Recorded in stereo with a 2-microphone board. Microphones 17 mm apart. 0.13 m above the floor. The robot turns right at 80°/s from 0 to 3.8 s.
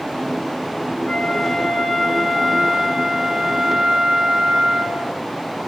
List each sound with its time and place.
1.1 s a flute: 80° left, 10 m; by 5.2 s 60° right, 10 m